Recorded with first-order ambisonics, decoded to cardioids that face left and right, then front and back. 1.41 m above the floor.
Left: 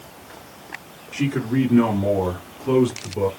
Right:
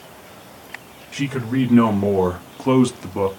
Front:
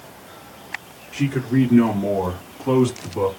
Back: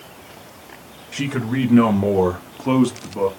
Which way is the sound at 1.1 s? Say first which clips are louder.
Even, front 2 dB; 150° right.